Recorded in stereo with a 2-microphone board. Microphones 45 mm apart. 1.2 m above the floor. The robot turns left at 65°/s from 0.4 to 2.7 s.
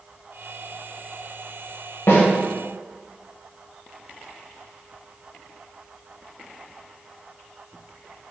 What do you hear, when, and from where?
2.1 s a snare drum: 65° left (ahead or behind), 1.8 m